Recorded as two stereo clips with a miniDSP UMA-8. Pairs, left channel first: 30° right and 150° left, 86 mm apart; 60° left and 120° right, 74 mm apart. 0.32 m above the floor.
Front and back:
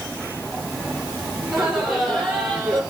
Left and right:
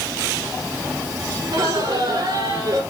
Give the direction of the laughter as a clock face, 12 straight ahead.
4 o'clock.